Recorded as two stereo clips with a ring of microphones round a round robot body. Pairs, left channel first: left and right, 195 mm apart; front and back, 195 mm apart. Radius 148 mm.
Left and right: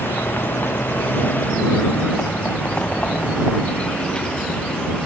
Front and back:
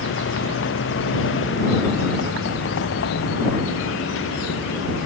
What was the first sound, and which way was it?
A vehicle, 10° left.